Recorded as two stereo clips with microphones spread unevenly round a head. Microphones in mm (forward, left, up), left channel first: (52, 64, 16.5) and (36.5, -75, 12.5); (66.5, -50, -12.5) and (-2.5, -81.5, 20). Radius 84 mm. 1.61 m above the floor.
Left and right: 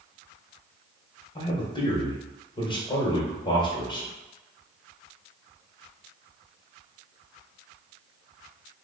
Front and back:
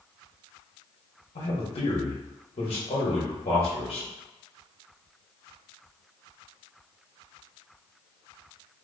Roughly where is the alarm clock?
I don't hear an alarm clock.